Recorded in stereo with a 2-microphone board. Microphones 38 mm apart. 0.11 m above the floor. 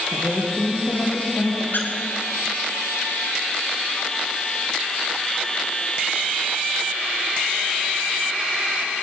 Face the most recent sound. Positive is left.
turn(degrees=65)  # may be behind; listen again after turning